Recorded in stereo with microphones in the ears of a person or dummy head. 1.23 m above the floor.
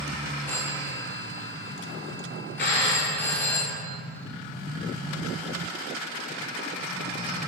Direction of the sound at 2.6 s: 60° left (ahead or behind).